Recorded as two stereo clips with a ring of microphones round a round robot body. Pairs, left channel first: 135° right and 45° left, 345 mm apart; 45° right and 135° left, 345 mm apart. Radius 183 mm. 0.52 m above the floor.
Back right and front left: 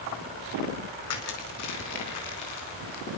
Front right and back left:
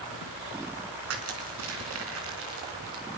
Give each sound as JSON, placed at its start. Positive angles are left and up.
{"t": 1.1, "sound": "crushing", "azimuth_deg": -175, "distance_m": 3.0}